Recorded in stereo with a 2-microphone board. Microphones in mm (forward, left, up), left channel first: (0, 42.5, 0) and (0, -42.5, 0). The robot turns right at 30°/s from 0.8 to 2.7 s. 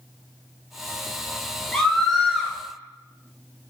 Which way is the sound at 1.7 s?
10° left (ahead or behind).